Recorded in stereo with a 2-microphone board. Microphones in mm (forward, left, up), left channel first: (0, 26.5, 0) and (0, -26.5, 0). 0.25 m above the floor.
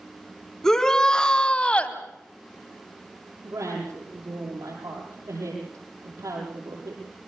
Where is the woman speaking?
80° right, 9.5 m.